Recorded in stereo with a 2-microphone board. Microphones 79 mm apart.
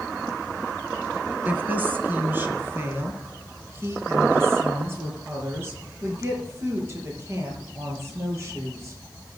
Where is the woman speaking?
20° right (ahead or behind), 1.9 m; by 9.0 s 35° right (ahead or behind), 7.5 m.